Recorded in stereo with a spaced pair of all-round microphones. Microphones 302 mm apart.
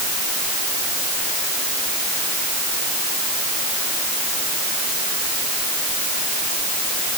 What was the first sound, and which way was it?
Only background noise.